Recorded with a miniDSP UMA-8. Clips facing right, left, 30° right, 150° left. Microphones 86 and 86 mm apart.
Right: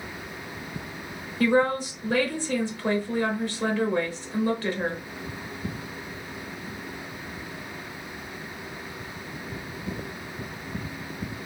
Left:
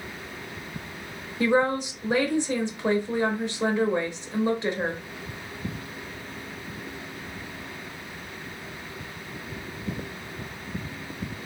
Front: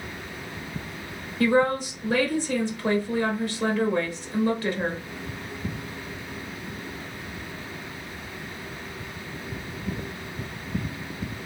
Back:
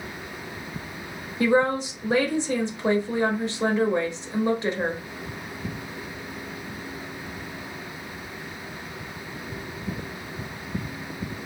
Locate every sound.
1.4 s a woman speaking: 120° left, 0.8 m